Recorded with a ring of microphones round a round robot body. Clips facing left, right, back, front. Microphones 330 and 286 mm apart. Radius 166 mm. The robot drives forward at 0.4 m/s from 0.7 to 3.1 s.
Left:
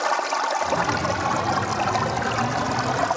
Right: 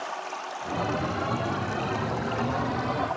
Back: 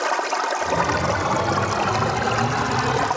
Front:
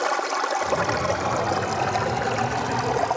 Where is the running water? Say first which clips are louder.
Left 10 dB, back 1 dB; 85° left, 2.5 m; by 3.2 s 110° left, 2.5 m.